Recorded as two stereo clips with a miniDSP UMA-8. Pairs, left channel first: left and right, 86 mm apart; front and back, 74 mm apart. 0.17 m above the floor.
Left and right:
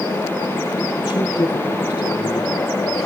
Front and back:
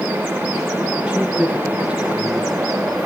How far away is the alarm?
I don't hear an alarm.